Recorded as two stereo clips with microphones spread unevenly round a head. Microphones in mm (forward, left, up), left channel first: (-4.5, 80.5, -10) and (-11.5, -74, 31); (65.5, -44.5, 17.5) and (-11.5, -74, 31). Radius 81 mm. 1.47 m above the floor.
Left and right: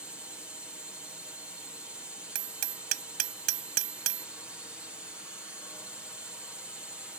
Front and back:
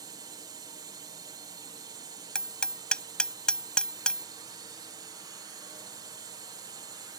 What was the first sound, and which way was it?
A drone, 170° left.